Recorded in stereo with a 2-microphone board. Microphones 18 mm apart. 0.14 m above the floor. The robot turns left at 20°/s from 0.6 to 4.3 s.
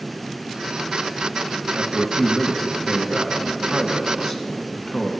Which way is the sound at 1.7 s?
Centre (ahead or behind).